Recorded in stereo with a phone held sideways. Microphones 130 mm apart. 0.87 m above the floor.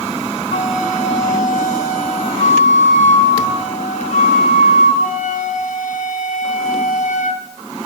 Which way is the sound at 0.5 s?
75° left (ahead or behind).